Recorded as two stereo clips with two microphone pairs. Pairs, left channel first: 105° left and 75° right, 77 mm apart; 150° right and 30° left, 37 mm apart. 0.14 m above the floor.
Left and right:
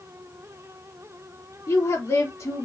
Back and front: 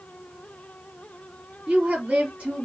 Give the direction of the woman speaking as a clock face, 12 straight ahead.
9 o'clock.